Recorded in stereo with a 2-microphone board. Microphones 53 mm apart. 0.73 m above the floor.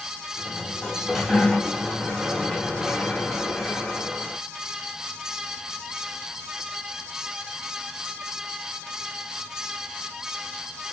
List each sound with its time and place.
0.4 s a sliding door: centre (ahead or behind), 1.3 m